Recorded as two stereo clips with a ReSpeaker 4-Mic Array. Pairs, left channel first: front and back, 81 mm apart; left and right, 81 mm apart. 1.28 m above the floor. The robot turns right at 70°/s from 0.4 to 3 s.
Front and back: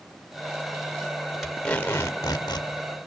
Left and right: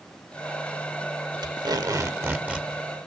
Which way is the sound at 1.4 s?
95° right.